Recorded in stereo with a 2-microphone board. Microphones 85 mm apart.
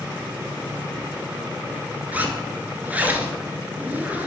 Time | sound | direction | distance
2.1 | a zipper | 20° right (ahead or behind) | 0.7 m